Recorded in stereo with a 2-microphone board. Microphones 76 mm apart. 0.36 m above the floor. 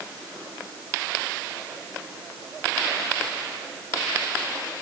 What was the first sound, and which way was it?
Only background noise.